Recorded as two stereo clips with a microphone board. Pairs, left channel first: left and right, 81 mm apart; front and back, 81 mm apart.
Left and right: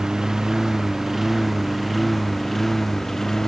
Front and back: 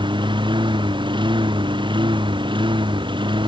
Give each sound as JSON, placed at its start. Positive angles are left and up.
{"t": 0.0, "sound": "a lawn mower", "azimuth_deg": -170}